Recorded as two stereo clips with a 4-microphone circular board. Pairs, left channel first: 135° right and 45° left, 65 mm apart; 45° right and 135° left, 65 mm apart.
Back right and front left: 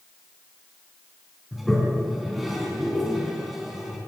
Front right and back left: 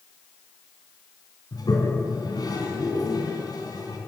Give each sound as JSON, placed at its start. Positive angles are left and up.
{"t": 1.5, "sound": "a toilet flushing", "azimuth_deg": -45, "distance_m": 3.5}